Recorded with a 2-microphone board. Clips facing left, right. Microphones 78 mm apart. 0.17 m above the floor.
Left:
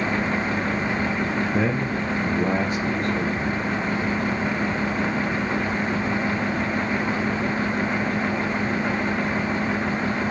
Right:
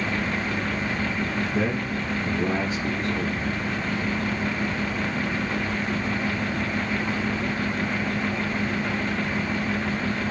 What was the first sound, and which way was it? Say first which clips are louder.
A man speaking: left 3 dB; 60° left (ahead or behind).